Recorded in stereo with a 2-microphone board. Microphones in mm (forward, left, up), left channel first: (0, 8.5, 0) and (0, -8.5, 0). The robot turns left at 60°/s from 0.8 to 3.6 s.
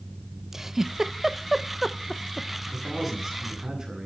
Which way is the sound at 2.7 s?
15° left.